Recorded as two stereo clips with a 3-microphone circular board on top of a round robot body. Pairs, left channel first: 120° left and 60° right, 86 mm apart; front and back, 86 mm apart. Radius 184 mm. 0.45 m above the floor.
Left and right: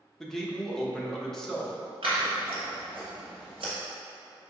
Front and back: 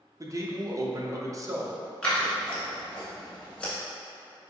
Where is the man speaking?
155° right, 0.9 m.